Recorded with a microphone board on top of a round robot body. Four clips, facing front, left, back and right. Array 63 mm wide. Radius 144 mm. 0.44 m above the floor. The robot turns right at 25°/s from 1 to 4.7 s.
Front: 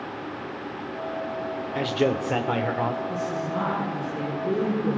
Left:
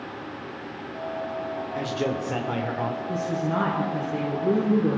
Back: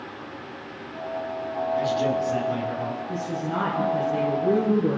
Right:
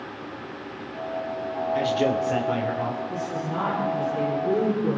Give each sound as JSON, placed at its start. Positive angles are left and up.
{"t": 1.8, "sound": "a man speaking", "azimuth_deg": -15, "distance_m": 2.5}
{"t": 3.1, "sound": "a woman speaking", "azimuth_deg": 105, "distance_m": 8.0}